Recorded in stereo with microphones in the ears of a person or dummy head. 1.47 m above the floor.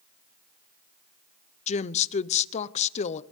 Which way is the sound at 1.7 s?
35° left (ahead or behind).